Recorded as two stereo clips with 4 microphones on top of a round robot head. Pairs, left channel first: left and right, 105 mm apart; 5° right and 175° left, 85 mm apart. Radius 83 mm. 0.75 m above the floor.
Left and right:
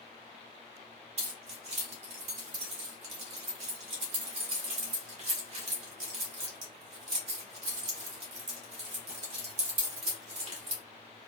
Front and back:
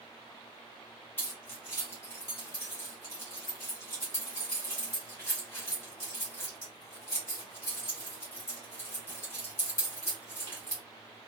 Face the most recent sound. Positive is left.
turn(degrees=-75)